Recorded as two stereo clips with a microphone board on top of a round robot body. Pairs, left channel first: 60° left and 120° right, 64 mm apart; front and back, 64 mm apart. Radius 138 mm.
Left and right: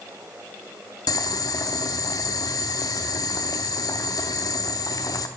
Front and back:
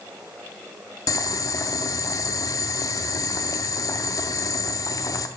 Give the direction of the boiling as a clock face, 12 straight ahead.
11 o'clock.